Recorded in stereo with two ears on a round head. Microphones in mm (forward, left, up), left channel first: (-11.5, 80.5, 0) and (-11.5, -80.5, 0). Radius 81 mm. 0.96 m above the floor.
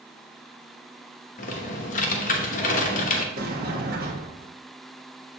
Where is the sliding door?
55° right (ahead or behind), 1.5 m.